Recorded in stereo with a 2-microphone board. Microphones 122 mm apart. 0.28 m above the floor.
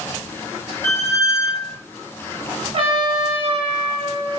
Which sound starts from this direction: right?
A trumpet, at 2.7 s.